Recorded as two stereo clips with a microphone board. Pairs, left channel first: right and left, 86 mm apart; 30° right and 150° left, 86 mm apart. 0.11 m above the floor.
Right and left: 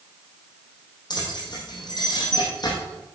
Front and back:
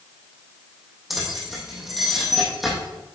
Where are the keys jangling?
120° right, 3 m.